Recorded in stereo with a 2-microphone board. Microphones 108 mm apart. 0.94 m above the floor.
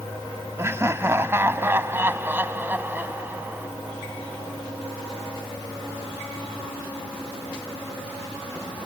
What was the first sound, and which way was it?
Laughter, 25° right (ahead or behind).